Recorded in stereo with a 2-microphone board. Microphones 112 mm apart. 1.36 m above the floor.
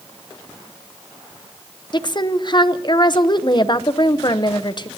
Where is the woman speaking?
40° left (ahead or behind), 0.7 m.